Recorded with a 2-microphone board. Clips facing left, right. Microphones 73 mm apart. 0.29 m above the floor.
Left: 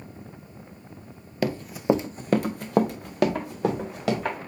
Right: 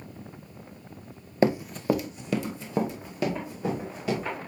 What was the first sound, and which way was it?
Running footsteps, 30° right (ahead or behind).